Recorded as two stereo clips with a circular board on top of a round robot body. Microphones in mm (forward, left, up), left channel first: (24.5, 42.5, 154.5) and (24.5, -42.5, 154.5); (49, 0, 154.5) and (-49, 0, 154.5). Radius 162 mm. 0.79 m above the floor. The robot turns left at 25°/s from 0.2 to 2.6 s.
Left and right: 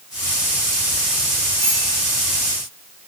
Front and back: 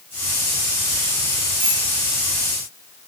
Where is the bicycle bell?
145° right, 9 m; by 1.8 s 150° right, 9 m.